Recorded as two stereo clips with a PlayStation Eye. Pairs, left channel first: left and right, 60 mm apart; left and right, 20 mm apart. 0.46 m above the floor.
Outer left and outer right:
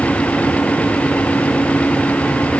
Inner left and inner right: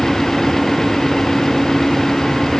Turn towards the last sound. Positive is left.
No sound to turn to.